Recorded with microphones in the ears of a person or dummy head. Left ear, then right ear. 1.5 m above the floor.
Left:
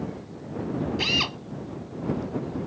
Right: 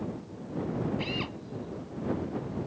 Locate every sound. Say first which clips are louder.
1.0 s a drill: left 10 dB; 35° left (ahead or behind)